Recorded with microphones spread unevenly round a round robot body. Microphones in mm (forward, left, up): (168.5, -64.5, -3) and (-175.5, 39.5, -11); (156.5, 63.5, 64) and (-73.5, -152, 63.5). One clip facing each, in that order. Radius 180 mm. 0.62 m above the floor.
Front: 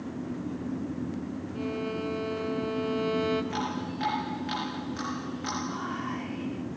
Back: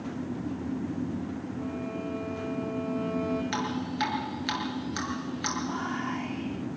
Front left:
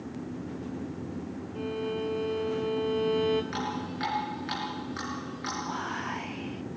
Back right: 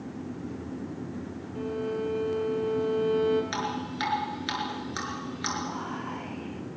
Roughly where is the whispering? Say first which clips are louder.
Back 2 dB, back right 1 dB; left.